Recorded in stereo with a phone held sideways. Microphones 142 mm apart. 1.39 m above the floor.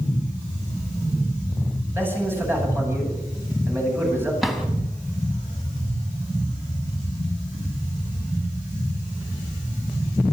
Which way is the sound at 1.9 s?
15° right (ahead or behind).